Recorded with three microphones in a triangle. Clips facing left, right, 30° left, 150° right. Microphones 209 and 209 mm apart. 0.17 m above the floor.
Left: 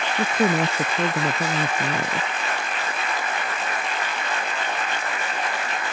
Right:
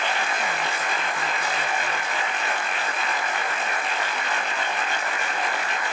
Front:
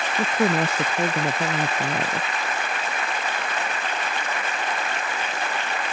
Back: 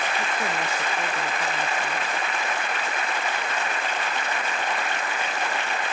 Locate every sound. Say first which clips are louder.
0.2 s a woman speaking: left 8 dB, front 7 dB; 75° left